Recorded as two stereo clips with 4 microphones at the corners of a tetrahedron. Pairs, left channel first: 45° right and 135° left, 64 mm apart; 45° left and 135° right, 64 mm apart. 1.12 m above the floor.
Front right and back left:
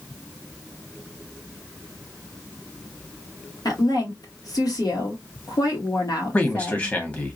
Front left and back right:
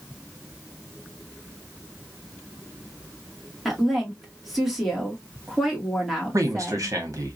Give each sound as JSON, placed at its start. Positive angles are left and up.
{"t": 3.6, "sound": "a woman speaking", "azimuth_deg": -50, "distance_m": 2.0}
{"t": 6.3, "sound": "a man speaking", "azimuth_deg": -110, "distance_m": 1.5}